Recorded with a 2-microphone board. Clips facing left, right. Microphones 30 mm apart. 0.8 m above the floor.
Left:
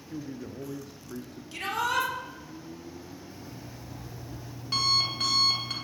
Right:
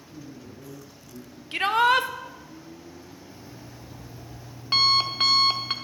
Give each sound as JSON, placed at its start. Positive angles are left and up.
{"t": 0.1, "sound": "a man speaking", "side_deg": 70, "distance_m": 0.8}
{"t": 1.5, "sound": "a shout", "side_deg": -45, "distance_m": 0.5}
{"t": 3.3, "sound": "an alarm clock", "side_deg": -40, "distance_m": 0.8}